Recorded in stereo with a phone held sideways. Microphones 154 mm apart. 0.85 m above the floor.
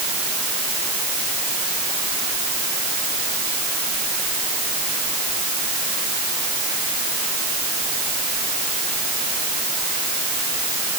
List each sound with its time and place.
Only background noise.